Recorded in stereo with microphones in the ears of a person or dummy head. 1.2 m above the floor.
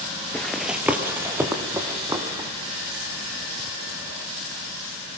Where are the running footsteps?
Centre (ahead or behind), 1.2 m; by 2.5 s 20° right (ahead or behind), 3 m.